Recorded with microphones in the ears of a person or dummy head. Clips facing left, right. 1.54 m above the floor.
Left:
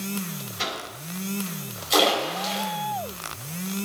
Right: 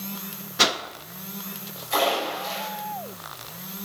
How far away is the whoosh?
About 0.7 m.